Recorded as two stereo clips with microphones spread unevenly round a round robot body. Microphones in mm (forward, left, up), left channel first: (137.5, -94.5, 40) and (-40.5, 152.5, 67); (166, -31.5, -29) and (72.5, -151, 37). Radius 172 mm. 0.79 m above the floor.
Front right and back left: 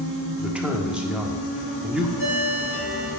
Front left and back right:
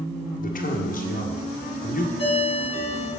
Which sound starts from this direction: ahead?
A ringtone, at 2.2 s.